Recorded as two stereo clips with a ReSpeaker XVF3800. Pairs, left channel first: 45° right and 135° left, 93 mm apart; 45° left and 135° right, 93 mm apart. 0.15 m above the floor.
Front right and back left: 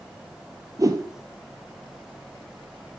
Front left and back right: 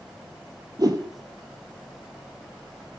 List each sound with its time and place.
0.8 s a whoosh: 175° right, 0.6 m